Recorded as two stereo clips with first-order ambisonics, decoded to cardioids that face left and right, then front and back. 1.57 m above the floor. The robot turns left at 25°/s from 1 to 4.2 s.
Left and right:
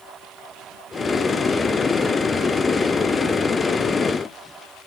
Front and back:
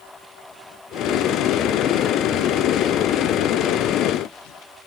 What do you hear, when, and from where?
Only background noise.